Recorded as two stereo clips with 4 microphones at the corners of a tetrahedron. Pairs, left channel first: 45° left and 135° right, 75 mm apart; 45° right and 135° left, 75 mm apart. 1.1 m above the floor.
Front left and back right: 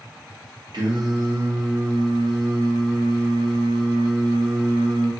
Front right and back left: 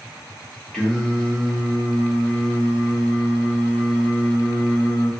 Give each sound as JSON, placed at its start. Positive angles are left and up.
{"t": 0.7, "sound": "singing", "azimuth_deg": -125, "distance_m": 0.6}